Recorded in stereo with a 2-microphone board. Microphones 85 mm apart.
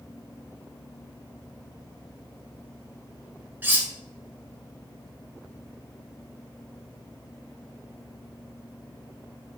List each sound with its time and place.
3.6 s cutlery clinking: 25° right (ahead or behind), 0.7 m